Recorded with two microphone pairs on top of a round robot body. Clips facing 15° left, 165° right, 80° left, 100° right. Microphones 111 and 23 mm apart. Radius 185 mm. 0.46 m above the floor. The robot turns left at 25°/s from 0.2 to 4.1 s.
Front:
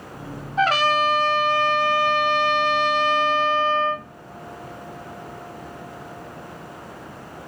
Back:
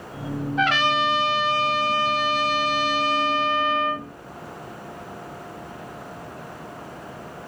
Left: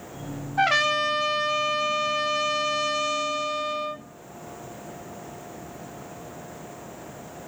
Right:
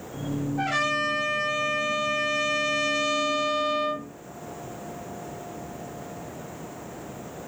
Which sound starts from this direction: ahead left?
A trumpet, at 0.6 s.